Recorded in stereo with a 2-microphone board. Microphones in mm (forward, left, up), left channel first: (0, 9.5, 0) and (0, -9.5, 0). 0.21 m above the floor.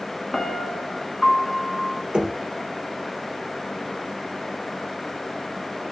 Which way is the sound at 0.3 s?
15° left (ahead or behind).